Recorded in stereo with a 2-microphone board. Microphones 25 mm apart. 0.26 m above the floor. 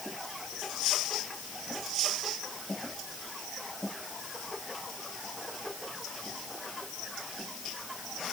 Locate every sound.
Only background noise.